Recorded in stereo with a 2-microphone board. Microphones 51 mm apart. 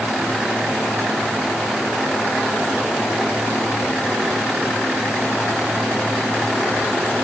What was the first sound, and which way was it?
Only background noise.